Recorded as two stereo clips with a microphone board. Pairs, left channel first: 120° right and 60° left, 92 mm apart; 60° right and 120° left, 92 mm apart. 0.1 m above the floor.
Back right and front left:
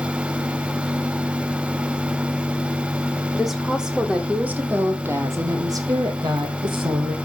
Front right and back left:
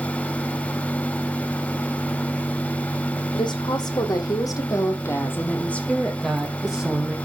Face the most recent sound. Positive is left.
turn(degrees=45)